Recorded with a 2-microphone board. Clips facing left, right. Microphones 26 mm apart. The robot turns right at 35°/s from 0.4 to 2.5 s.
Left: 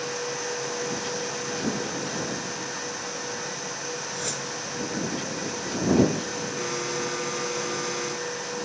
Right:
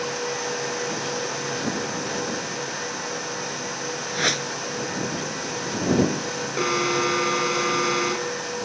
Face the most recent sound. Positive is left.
turn(degrees=-40)  # may be behind; listen again after turning